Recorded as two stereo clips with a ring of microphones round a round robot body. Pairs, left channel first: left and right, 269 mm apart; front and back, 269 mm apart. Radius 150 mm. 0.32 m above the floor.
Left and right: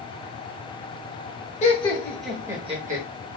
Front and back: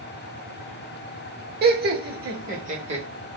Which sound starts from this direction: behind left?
Laughter, at 1.6 s.